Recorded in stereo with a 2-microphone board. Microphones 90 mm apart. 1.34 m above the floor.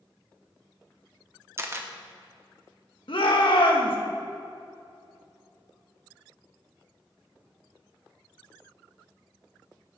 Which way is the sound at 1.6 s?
30° right (ahead or behind).